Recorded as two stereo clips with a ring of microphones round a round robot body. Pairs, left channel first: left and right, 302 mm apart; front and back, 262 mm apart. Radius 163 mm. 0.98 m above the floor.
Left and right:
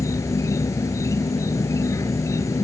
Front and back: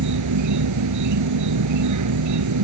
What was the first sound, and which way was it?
An insect, 170° left.